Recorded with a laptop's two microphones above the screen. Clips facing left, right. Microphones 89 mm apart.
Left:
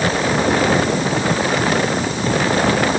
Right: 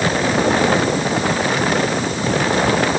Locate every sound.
Only background noise.